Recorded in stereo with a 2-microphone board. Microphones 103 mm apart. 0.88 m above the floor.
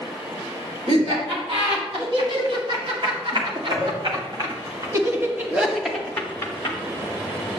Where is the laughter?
65° right (ahead or behind), 3.5 m; by 6.8 s 30° left (ahead or behind), 1.0 m.